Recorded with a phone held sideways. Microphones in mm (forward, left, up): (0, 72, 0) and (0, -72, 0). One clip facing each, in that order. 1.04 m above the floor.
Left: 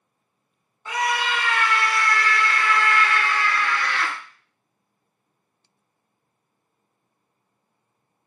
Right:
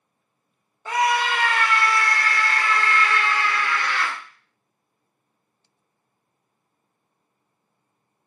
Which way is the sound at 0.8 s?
40° right (ahead or behind).